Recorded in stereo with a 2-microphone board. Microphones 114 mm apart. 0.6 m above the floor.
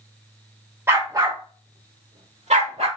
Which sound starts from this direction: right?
A dog barking, at 0.9 s.